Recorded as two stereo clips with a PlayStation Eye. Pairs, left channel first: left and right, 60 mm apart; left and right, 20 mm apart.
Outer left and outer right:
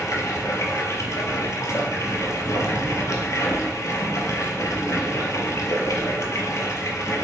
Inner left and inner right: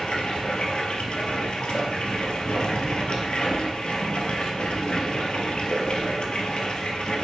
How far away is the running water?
About 0.7 m.